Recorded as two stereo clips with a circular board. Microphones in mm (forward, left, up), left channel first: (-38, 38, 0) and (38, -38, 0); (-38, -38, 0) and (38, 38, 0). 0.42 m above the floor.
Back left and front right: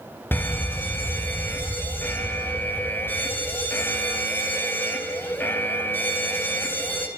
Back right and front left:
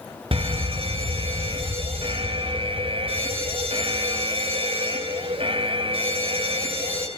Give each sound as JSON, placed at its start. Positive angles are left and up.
{"t": 0.3, "sound": "a fire alarm", "azimuth_deg": 65, "distance_m": 4.0}